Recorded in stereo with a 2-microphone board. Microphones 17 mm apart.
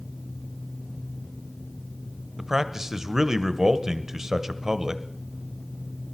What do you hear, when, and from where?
2.4 s a man speaking: 25° right (ahead or behind), 0.8 m